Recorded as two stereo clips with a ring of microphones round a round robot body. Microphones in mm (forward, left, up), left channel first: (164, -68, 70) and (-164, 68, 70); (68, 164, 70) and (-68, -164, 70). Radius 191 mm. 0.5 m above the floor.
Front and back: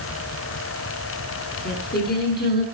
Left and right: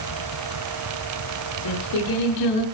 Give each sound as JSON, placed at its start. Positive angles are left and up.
{"t": 1.6, "sound": "singing", "azimuth_deg": 40, "distance_m": 7.0}